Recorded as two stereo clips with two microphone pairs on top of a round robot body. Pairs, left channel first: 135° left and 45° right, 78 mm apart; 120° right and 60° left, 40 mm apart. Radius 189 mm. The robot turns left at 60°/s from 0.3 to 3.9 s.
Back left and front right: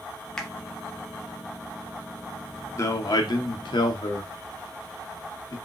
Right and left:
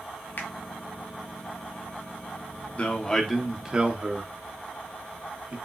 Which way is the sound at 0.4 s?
145° right.